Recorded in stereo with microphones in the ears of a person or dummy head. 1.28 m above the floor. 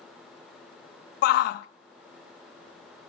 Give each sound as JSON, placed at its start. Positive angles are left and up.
{"t": 1.2, "sound": "a shout", "side_deg": 60, "distance_m": 0.6}